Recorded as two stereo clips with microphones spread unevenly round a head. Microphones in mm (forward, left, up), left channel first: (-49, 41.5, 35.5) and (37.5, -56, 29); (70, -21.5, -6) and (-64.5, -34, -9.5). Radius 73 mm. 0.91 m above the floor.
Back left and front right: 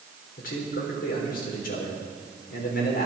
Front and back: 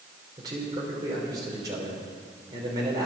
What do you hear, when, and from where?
0.4 s a man speaking: 120° left, 3.5 m